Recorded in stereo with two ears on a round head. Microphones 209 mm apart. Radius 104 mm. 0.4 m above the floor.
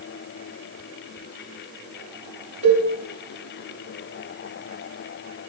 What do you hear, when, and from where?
2.6 s a cowbell: 30° right (ahead or behind), 3 m